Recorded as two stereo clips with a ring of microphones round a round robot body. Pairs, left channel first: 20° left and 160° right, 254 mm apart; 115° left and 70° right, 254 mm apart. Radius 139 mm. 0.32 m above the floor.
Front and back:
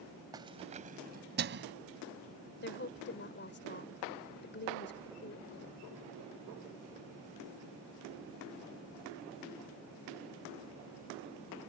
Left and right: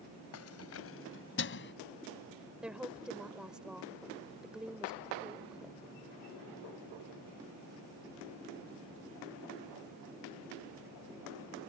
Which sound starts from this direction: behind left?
Keys jangling, at 0.3 s.